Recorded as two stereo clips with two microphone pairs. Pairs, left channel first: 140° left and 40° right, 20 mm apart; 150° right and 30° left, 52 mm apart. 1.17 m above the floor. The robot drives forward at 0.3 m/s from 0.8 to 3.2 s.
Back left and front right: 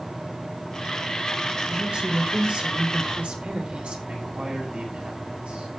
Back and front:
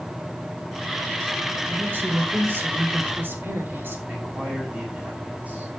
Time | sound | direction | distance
1.7 | a woman speaking | 15° right | 4 m
4.1 | a man speaking | 35° right | 9 m